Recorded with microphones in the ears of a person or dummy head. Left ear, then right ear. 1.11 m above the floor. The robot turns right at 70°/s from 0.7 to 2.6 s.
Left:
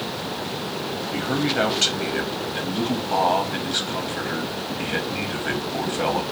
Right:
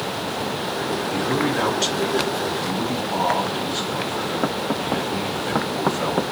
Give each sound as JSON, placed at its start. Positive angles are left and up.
{"t": 1.1, "sound": "a man speaking", "azimuth_deg": 0, "distance_m": 0.7}